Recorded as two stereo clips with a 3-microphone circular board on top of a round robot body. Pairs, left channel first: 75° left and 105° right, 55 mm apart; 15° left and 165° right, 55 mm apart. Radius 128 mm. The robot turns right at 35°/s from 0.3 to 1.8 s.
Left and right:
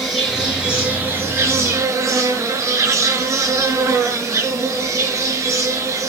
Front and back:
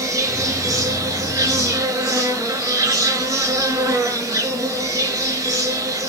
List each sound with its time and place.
0.0 s an insect: 165° left, 5.5 m; by 6.1 s 145° right, 5.5 m